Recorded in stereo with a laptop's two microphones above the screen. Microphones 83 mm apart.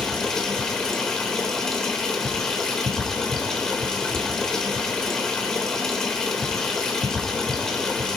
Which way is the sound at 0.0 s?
5° left (ahead or behind).